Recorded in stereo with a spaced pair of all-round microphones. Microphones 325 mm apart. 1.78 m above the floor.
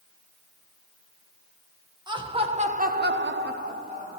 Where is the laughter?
15° right (ahead or behind), 1.5 m.